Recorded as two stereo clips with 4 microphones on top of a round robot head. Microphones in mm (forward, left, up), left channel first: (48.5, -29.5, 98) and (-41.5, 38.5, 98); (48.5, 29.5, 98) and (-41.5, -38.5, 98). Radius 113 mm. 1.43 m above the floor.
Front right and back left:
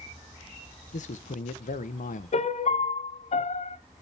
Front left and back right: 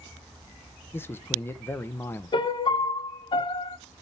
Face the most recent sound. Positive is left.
turn(degrees=-15)